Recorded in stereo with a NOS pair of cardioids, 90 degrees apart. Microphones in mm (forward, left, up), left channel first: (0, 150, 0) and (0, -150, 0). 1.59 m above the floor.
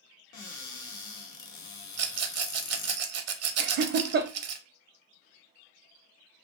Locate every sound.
0.3 s a cupboard door: 70° left, 0.9 m
2.0 s a rattle: 60° right, 0.6 m
3.6 s laughter: 45° right, 0.5 m